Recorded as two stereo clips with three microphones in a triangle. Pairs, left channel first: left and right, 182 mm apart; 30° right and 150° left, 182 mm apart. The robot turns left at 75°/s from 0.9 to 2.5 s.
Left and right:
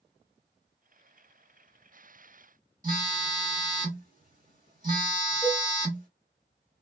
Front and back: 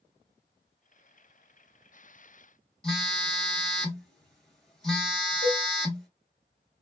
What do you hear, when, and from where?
2.8 s a phone buzzing: 115° right, 1.5 m
5.4 s a cowbell: 175° right, 1.4 m